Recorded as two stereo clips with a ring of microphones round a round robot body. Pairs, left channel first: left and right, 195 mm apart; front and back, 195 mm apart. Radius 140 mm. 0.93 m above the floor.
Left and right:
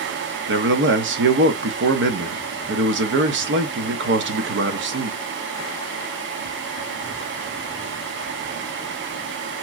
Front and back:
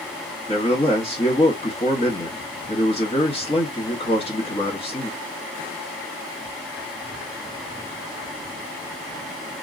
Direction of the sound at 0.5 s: 70° right.